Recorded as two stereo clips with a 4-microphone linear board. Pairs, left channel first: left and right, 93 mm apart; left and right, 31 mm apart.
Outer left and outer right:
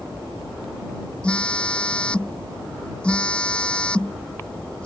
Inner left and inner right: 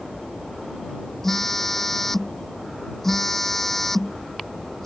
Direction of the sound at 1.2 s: 10° left (ahead or behind).